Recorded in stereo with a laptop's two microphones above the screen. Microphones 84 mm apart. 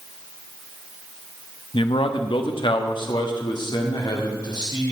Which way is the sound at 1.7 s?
70° left (ahead or behind).